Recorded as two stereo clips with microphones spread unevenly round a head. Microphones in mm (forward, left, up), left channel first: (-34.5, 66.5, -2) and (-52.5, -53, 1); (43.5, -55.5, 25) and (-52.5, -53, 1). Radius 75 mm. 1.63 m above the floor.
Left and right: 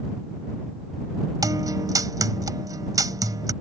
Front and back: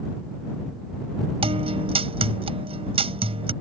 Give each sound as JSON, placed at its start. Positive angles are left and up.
{"t": 1.4, "sound": "a guitar", "azimuth_deg": -155}